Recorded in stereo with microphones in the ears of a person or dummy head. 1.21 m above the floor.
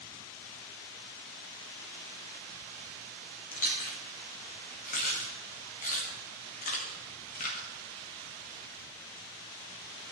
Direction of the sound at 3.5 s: 45° left (ahead or behind).